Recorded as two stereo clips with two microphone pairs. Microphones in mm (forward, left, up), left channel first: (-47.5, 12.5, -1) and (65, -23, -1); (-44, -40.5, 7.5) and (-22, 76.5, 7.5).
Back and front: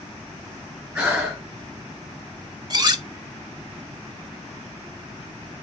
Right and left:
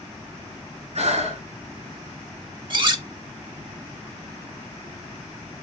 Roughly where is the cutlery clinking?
Ahead left.